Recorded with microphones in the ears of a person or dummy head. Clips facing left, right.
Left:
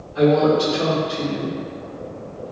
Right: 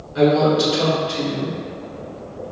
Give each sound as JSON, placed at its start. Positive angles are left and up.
{"t": 0.1, "sound": "a woman speaking", "side_deg": -60, "distance_m": 1.8}